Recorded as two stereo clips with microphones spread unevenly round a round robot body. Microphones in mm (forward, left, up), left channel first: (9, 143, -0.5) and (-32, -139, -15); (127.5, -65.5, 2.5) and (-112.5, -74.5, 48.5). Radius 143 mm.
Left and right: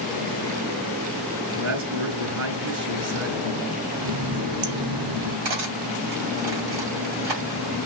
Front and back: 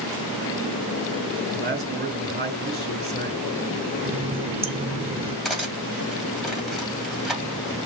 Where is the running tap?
110° right, 2 m.